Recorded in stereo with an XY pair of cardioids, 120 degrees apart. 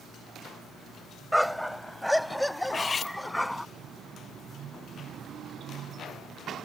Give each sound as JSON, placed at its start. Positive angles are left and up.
{"t": 1.3, "sound": "a dog barking", "azimuth_deg": 0}
{"t": 2.6, "sound": "cutlery clinking", "azimuth_deg": 35}